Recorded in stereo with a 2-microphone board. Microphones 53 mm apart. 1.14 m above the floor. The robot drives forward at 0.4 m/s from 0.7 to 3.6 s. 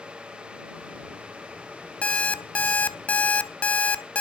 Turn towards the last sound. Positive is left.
turn(degrees=25)  # may be behind; listen again after turning